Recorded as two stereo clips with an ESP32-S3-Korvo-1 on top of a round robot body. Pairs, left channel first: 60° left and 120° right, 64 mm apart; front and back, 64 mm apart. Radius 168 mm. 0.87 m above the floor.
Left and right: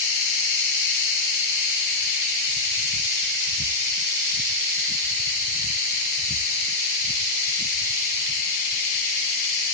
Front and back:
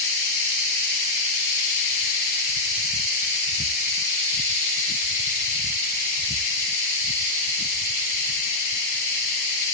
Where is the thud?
No thud in this recording.